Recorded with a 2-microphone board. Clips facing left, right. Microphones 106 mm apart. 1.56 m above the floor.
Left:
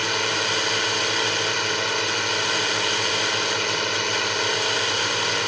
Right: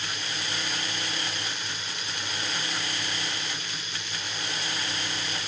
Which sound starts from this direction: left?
A drone, at 0.0 s.